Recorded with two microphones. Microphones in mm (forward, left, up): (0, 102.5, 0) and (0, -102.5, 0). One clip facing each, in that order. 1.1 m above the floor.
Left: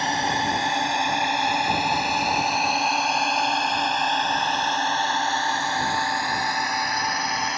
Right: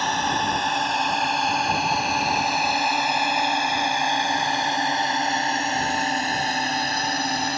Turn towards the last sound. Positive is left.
turn(degrees=-35)  # may be behind; listen again after turning